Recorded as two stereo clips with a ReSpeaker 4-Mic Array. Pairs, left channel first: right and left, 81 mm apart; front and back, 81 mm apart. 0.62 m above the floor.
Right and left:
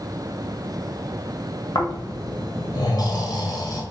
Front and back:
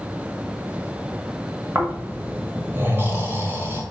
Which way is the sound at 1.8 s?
120° right.